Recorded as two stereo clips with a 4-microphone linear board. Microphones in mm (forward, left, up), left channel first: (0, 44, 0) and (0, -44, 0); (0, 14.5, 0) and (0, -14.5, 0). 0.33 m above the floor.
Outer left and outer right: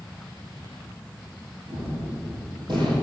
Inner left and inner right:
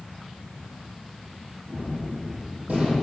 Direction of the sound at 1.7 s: 60° right (ahead or behind).